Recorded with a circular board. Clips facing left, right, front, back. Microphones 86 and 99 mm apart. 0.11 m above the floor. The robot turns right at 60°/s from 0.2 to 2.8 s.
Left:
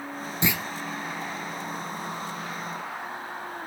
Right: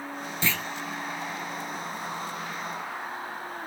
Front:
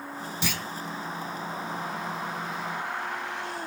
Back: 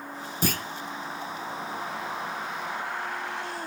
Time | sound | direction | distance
0.4 | a clunk | 155° left | 0.7 m